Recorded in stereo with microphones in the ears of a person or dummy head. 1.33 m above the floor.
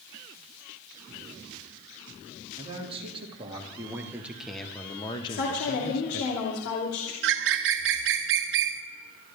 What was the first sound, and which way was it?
A man speaking, 35° right (ahead or behind).